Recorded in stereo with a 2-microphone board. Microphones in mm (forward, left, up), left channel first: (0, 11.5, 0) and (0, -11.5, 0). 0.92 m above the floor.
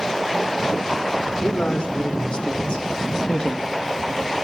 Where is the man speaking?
55° left (ahead or behind), 3.5 m; by 3.7 s 20° left (ahead or behind), 1.4 m.